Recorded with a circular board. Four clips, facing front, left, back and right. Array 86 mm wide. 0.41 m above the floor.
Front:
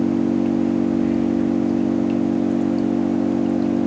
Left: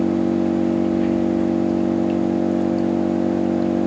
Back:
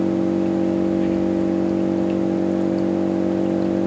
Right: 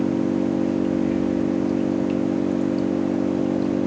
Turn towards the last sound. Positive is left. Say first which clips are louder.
# left 3 dB, front 1 dB
turn(degrees=125)